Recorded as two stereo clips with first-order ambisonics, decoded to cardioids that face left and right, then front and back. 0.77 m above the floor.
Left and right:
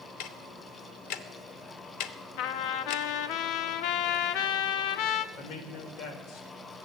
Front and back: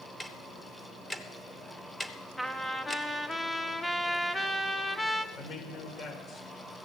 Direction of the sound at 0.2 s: 80° left.